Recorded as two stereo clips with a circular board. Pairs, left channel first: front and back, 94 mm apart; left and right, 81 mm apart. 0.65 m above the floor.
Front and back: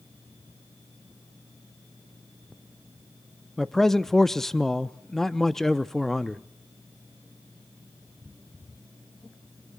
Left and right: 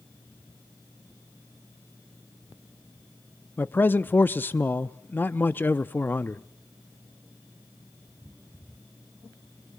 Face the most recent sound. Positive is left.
turn(degrees=80)